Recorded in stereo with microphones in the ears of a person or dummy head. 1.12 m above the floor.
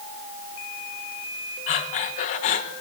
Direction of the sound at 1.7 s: 40° left (ahead or behind).